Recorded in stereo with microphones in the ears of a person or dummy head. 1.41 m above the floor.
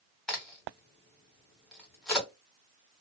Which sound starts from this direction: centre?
A crack, at 0.3 s.